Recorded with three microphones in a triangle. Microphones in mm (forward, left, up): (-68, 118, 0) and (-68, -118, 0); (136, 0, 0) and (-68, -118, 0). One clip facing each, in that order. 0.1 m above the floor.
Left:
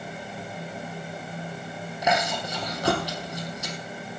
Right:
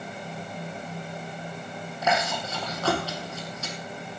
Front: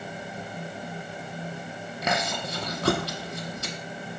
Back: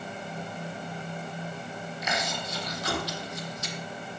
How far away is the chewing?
About 2 m.